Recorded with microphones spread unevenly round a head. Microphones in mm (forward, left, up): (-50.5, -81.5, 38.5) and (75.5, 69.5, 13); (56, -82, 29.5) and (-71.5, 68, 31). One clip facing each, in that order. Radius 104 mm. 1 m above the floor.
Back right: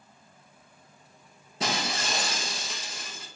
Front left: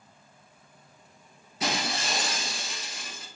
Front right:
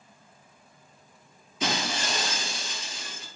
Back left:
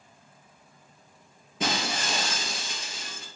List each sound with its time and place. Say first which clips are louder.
1.6 s breaking glass: even, even; 170° left, 3 m